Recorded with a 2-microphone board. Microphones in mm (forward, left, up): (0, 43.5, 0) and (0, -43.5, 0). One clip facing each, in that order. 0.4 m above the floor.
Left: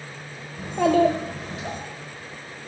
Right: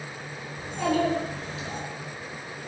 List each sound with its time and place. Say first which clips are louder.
0.6 s a child speaking: left 7 dB; 55° left (ahead or behind), 0.9 m